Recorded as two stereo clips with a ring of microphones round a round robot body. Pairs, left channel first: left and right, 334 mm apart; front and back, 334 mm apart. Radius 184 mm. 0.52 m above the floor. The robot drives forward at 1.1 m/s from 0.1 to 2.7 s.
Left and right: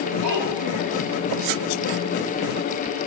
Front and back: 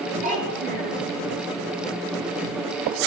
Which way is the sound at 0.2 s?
115° right.